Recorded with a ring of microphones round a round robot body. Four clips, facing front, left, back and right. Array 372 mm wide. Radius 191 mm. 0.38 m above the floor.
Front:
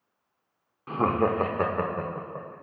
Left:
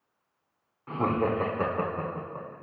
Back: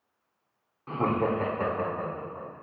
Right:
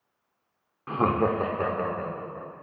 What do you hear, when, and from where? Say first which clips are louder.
0.9 s laughter: right 3 dB, front 2 dB; 75° right, 0.9 m; by 2.5 s 20° left, 1.8 m